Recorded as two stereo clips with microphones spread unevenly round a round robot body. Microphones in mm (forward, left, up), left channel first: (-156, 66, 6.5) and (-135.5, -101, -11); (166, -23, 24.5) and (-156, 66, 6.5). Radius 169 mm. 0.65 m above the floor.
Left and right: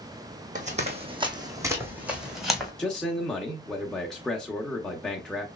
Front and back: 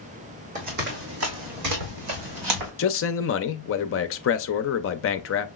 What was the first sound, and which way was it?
Running footsteps, 125° right.